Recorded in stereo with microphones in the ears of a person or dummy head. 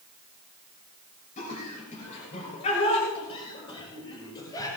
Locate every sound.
1.4 s laughter: 40° left (ahead or behind), 6.5 m; by 4.7 s 20° left (ahead or behind), 6.5 m